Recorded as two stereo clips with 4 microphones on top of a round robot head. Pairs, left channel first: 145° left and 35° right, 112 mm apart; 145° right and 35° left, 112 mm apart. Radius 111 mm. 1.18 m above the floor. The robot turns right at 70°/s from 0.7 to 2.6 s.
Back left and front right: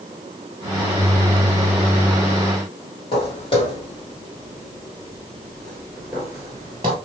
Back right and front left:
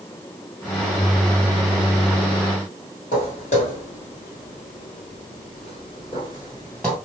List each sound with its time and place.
3.1 s footsteps: 170° right, 2.5 m; by 7.0 s 60° right, 1.3 m